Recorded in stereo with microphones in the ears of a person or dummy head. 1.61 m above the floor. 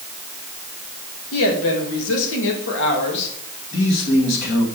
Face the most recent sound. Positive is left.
turn(degrees=60)  # may be behind; listen again after turning